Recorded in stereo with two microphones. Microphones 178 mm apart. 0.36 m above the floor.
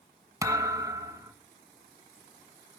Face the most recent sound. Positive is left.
turn(degrees=-20)  # may be behind; listen again after turning